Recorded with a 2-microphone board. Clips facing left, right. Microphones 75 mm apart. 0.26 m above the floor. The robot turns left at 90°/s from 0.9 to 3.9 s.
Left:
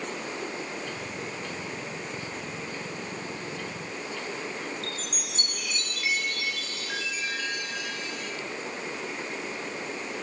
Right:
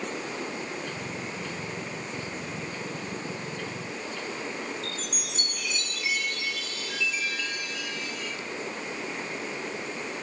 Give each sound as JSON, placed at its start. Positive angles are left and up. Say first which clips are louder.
{"t": 4.8, "sound": "a chime", "louder": "even", "side_deg": 50, "distance_m": 4.0}